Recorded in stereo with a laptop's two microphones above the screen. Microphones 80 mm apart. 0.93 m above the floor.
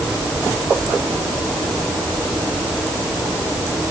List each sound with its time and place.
Only background noise.